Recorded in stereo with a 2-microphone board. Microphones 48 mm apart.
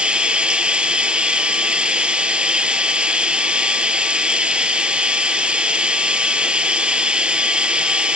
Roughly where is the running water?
Right.